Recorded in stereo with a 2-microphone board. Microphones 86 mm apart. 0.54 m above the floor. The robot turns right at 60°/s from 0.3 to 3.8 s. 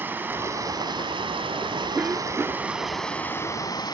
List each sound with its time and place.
0.0 s running water: 160° right, 1.5 m; by 3.9 s 50° left, 1.5 m
1.9 s a cough: 155° right, 1.0 m; by 2.7 s 110° right, 1.0 m